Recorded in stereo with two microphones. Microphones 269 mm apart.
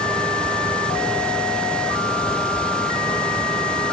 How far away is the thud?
No thud in this recording.